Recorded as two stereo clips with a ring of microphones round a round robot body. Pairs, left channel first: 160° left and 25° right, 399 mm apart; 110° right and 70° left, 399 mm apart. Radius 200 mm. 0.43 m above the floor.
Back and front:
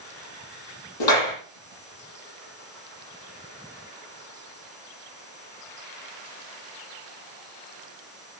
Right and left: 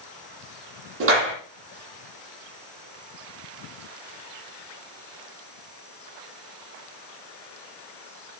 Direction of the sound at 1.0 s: 130° left.